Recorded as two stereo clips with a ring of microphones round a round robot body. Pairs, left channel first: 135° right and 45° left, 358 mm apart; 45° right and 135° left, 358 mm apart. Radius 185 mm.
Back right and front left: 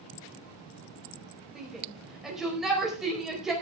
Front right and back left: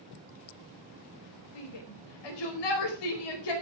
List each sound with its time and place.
1.6 s a shout: 45° right, 4.5 m